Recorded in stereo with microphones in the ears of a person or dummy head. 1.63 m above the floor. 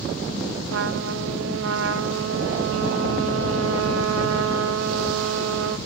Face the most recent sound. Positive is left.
turn(degrees=-85)